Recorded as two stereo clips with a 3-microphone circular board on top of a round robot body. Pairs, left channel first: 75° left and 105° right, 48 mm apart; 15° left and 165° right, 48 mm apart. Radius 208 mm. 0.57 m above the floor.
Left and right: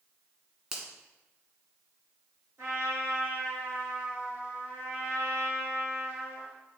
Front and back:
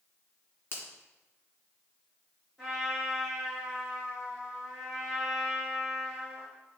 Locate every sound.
0.7 s a finger snap: 30° right, 2 m
2.6 s a trumpet: 70° right, 3 m